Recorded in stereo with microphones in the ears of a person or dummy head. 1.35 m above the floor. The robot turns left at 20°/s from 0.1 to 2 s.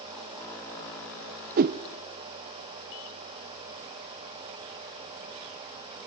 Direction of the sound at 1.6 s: 45° right (ahead or behind).